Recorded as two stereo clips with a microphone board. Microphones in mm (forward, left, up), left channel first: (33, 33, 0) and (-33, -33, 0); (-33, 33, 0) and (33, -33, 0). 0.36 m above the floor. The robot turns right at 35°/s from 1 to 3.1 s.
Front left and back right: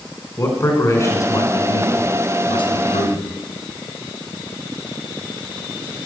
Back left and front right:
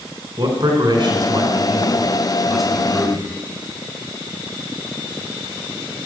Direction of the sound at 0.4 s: 10° right.